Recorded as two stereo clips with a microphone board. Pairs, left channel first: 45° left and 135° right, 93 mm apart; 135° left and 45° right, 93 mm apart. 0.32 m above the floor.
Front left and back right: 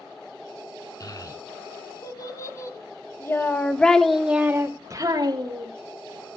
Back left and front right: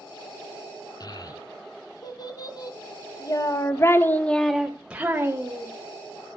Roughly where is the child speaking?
Left.